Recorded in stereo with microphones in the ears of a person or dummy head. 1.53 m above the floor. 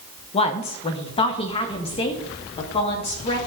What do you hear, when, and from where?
0.3 s a woman speaking: 30° left (ahead or behind), 0.8 m; by 3.4 s 25° left (ahead or behind), 2.5 m